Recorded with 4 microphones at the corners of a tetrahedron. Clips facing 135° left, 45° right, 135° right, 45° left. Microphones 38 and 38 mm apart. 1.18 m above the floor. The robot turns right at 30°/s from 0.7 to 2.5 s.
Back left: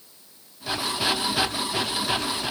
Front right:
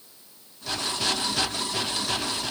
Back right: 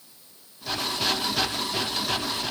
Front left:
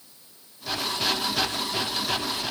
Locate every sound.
Only background noise.